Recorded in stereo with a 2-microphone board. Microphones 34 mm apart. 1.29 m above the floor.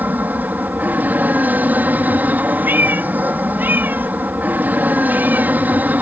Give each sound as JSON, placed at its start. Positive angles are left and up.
{"t": 0.0, "sound": "an aircraft", "side_deg": -60}
{"t": 2.6, "sound": "a cat meowing", "side_deg": -65}